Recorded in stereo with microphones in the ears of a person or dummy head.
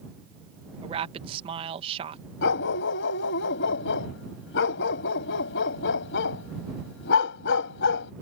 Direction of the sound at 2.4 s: 60° left (ahead or behind).